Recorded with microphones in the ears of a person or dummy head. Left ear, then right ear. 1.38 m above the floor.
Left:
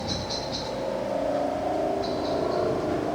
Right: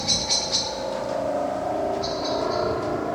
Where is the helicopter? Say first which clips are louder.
Right 7 dB; 65° right (ahead or behind); by 3.2 s 60° right (ahead or behind).